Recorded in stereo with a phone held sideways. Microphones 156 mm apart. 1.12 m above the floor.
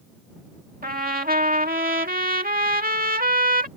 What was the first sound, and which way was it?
A trumpet, 65° right (ahead or behind).